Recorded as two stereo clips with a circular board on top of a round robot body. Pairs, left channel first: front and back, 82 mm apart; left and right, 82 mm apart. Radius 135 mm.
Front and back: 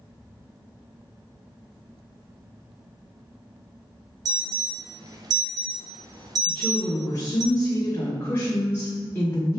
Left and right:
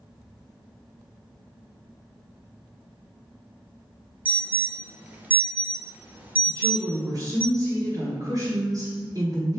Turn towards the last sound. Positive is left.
turn(degrees=-60)